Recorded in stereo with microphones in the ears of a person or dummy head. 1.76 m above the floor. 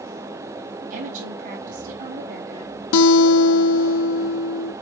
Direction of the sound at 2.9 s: 70° left (ahead or behind).